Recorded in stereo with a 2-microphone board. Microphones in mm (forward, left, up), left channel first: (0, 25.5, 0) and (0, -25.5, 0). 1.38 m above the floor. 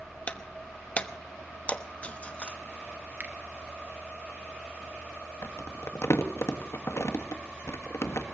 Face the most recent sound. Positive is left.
turn(degrees=75)  # may be behind; listen again after turning